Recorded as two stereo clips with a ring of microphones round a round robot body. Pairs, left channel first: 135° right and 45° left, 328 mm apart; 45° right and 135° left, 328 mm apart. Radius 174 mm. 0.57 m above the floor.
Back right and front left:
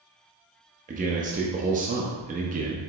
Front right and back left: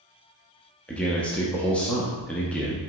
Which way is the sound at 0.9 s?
35° left.